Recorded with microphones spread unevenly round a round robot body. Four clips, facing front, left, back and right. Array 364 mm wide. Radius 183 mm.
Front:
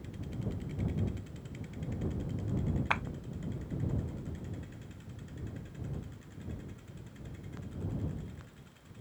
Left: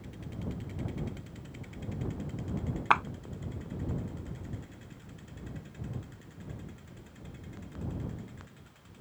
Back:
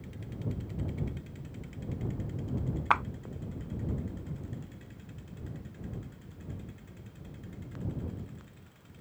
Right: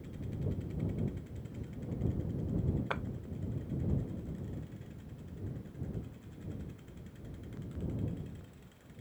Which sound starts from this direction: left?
A clap, at 2.9 s.